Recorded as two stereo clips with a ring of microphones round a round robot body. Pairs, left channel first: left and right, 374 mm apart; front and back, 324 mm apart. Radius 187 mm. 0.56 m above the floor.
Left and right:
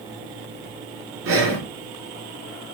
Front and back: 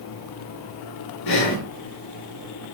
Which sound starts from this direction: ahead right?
Breathing, at 1.2 s.